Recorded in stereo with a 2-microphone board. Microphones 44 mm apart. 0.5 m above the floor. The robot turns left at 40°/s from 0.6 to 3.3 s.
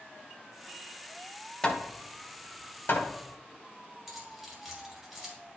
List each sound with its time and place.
1.6 s hammering: 20° left (ahead or behind), 1.2 m; by 3.1 s 60° left (ahead or behind), 1.2 m
4.1 s keys jangling: 5° right (ahead or behind), 2 m